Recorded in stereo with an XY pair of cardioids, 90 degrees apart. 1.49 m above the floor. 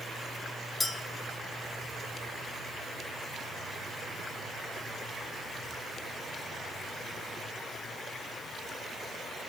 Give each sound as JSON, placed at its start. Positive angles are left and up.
{"t": 0.8, "sound": "a clink", "azimuth_deg": 25, "distance_m": 2.0}